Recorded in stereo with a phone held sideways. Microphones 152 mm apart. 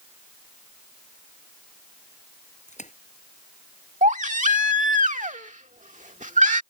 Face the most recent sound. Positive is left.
turn(degrees=-55)  # may be behind; listen again after turning